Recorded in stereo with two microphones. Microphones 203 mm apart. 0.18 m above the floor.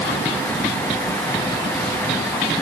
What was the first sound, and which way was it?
Only background noise.